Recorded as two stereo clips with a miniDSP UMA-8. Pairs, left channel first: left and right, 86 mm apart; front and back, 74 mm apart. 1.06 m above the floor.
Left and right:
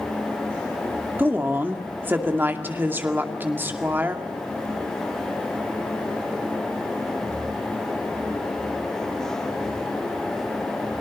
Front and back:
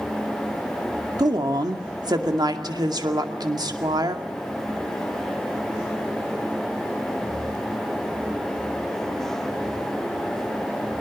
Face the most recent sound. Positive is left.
turn(degrees=-155)